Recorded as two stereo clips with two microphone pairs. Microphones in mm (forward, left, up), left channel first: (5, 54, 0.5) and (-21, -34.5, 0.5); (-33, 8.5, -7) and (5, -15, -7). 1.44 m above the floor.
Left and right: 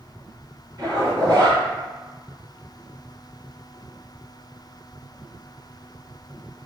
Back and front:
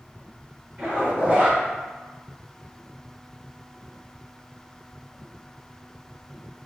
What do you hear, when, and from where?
0.8 s a zipper: 80° right, 1.8 m